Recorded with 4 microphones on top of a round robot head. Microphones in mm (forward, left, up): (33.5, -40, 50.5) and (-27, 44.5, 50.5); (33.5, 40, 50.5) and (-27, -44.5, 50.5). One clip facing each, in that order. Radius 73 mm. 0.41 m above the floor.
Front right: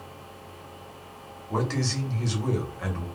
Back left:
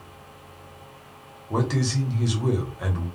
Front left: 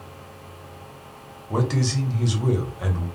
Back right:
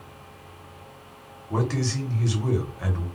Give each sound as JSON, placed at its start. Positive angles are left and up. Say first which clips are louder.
{"t": 1.5, "sound": "a man speaking", "louder": "back left 3 dB, front left 2 dB", "azimuth_deg": 80, "distance_m": 0.9}